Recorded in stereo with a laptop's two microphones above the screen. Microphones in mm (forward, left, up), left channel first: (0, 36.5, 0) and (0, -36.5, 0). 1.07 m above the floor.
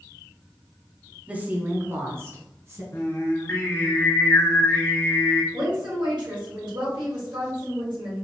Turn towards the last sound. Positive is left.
turn(degrees=-80)